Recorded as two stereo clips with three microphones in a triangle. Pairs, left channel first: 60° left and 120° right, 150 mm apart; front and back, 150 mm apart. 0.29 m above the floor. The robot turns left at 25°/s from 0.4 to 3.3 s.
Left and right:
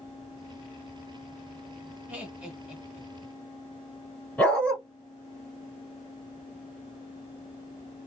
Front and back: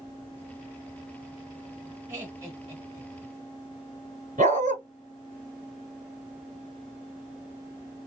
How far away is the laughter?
About 1.3 m.